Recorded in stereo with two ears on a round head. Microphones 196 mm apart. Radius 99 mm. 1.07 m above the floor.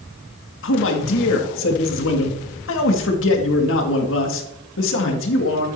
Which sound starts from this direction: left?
A man speaking, at 0.6 s.